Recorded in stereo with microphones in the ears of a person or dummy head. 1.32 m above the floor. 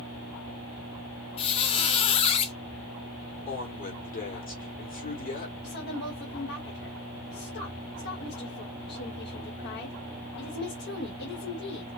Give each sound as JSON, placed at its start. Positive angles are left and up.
{"t": 1.4, "sound": "a squeak", "side_deg": 30, "distance_m": 0.5}
{"t": 3.5, "sound": "a woman speaking", "side_deg": 40, "distance_m": 2.0}
{"t": 5.6, "sound": "a woman speaking", "side_deg": 60, "distance_m": 1.7}